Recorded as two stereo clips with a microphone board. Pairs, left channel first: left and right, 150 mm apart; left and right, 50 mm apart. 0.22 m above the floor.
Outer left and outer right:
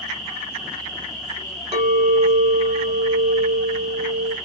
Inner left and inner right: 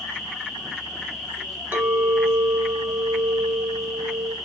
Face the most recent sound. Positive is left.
turn(degrees=-45)  # may be behind; listen again after turning